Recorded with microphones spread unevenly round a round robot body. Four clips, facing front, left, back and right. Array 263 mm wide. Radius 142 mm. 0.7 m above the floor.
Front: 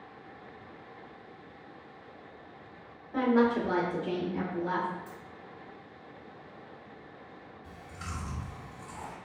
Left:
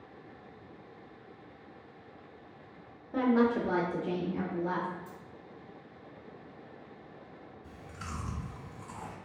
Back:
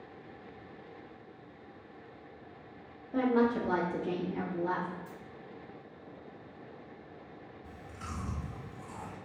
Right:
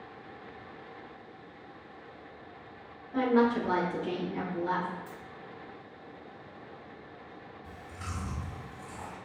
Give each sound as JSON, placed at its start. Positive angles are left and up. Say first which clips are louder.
{"t": 3.1, "sound": "a woman speaking", "louder": "right 1 dB, front 2 dB", "azimuth_deg": 120, "distance_m": 1.0}
{"t": 5.0, "sound": "a dropped coin", "louder": "right 2 dB, front 1 dB", "azimuth_deg": 170, "distance_m": 0.5}
{"t": 7.6, "sound": "chewing", "louder": "even, front 1 dB", "azimuth_deg": 135, "distance_m": 1.4}